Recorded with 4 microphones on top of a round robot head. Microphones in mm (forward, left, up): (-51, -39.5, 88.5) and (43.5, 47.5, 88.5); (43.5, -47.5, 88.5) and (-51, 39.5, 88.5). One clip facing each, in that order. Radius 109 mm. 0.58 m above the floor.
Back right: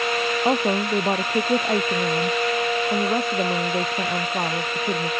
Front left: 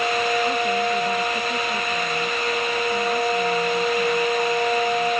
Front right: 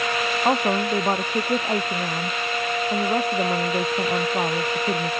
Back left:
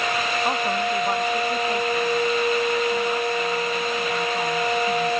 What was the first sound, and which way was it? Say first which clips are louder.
A woman speaking: back right 1 dB, front right 5 dB; 105° right.